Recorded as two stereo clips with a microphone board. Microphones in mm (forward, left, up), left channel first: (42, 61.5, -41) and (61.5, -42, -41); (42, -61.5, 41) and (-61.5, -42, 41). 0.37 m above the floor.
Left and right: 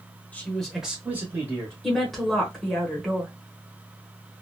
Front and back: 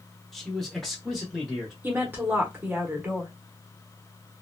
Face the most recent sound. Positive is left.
turn(degrees=-175)